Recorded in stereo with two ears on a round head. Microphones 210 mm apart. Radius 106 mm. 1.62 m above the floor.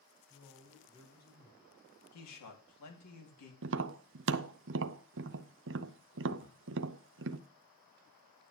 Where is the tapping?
50° right (ahead or behind), 0.5 m.